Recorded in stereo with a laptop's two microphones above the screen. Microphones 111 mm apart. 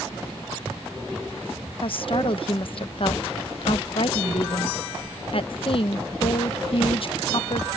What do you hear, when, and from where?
1.8 s a woman speaking: 55° left (ahead or behind)